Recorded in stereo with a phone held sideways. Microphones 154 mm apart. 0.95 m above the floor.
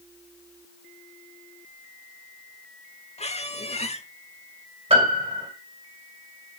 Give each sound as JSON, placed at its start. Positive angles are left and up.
{"t": 3.2, "sound": "a squeak", "side_deg": 45, "distance_m": 0.8}
{"t": 4.9, "sound": "a piano", "side_deg": -40, "distance_m": 2.5}